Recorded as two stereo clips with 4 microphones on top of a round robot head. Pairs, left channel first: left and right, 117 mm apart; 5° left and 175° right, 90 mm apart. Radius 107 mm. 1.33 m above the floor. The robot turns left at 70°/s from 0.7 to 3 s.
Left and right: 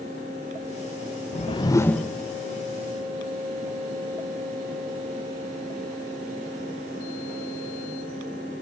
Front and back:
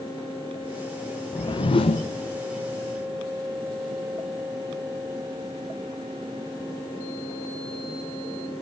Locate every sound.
1.3 s a whoosh: 55° left, 1.0 m; by 2.1 s 5° left, 1.0 m